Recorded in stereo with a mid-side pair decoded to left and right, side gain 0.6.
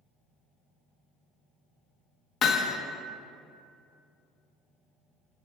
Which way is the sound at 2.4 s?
45° left.